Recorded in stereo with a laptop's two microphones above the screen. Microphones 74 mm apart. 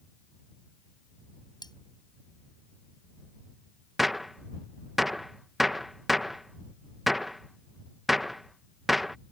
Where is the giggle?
I don't hear a giggle.